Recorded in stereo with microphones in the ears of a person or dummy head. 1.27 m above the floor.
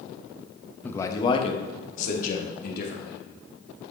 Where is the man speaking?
10° left (ahead or behind), 1.1 m; by 3.2 s 60° left (ahead or behind), 3 m.